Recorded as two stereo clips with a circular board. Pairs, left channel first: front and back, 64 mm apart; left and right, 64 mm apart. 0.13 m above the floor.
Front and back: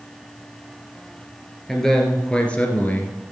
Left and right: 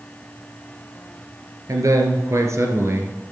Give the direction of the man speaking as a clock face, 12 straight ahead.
3 o'clock.